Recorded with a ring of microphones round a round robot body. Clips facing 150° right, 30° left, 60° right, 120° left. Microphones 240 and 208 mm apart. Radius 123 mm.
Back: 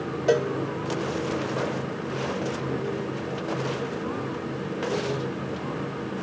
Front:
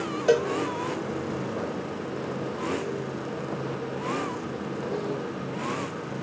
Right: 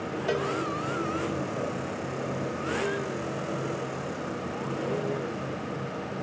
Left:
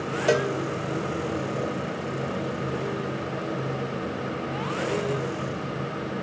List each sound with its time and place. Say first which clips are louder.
0.3 s a cowbell: front 1 dB, left 6 dB; 110° left, 1.2 m